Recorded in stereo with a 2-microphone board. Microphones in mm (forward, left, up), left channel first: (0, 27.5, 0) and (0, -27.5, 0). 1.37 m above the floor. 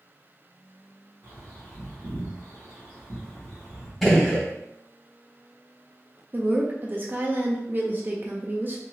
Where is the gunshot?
Centre (ahead or behind), 1.4 m.